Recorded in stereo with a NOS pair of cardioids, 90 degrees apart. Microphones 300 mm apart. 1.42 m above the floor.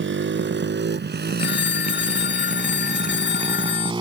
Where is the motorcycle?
40° right; by 4.0 s 15° right.